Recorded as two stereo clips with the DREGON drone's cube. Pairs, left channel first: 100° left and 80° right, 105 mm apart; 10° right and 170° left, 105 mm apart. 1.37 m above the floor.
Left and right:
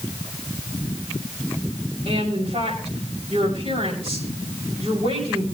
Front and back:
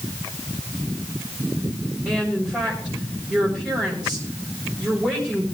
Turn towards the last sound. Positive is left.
turn(degrees=-90)